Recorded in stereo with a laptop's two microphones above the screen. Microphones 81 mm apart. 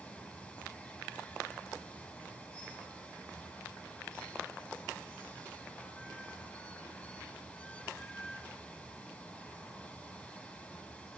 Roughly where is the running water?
Centre.